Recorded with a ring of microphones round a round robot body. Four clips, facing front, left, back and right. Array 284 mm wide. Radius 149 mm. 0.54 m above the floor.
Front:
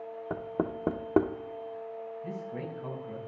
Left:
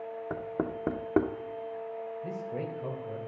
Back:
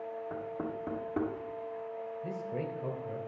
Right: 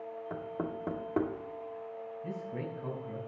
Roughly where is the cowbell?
No cowbell in this recording.